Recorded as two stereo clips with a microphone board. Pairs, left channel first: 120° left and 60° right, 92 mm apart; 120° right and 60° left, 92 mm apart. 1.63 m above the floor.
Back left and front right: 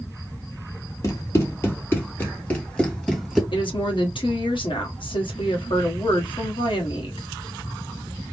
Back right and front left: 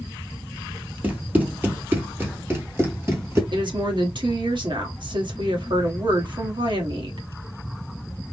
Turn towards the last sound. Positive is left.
turn(degrees=90)